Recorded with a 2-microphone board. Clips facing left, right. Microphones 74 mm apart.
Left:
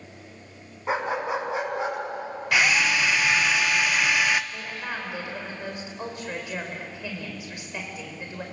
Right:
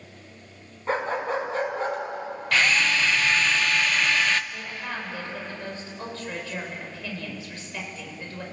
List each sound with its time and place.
0.9 s a dog barking: 15° left (ahead or behind), 4.5 m
2.5 s a drill: 10° left (ahead or behind), 0.7 m
4.5 s a woman speaking: 15° left (ahead or behind), 5 m